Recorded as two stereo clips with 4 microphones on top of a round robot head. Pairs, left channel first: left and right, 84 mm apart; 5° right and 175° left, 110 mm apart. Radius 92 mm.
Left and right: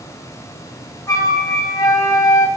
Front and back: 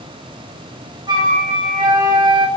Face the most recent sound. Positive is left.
turn(degrees=135)